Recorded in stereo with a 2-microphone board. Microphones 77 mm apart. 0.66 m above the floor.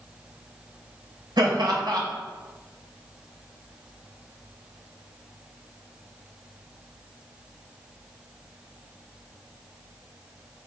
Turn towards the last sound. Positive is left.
turn(degrees=-75)  # may be behind; listen again after turning